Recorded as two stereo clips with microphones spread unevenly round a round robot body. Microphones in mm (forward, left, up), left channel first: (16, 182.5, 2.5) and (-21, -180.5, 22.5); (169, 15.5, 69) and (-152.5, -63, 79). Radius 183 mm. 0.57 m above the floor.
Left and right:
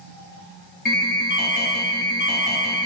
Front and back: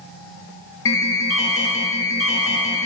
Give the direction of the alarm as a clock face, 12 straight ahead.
11 o'clock.